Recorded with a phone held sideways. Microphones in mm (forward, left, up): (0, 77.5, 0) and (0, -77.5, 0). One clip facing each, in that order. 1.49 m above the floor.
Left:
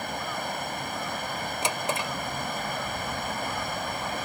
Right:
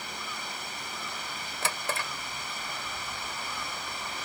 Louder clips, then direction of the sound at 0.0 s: Left 8 dB; 60° left (ahead or behind).